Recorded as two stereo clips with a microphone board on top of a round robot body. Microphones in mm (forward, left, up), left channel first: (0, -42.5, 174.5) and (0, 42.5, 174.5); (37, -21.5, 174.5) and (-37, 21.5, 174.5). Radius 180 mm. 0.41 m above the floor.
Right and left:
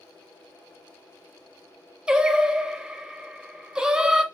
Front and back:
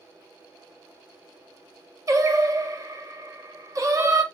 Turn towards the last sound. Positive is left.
turn(degrees=165)